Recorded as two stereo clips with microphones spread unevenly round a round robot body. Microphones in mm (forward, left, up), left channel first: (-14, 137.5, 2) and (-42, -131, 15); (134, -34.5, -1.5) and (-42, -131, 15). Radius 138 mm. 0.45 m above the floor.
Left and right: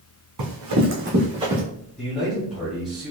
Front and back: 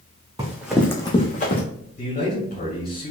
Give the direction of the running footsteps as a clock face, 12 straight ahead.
3 o'clock.